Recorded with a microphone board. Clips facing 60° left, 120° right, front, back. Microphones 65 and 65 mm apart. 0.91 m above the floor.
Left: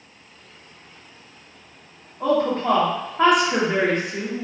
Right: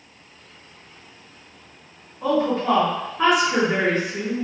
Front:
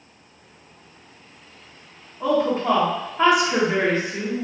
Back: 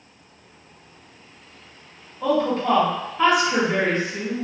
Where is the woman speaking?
65° left, 1.3 m.